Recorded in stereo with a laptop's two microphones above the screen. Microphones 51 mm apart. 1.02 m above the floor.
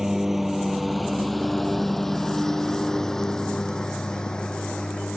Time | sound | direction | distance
0.0 | a lawn mower | 10° right (ahead or behind) | ?